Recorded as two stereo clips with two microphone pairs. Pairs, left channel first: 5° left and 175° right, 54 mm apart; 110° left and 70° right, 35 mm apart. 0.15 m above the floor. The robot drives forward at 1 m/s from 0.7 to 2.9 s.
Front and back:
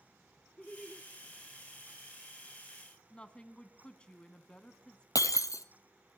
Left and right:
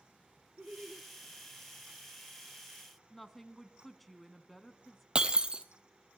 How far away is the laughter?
About 1.2 m.